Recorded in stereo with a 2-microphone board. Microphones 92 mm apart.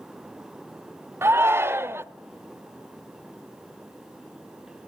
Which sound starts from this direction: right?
A shout, at 1.2 s.